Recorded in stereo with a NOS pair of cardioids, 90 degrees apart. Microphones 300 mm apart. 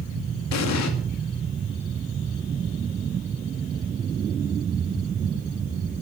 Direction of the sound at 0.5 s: 65° left.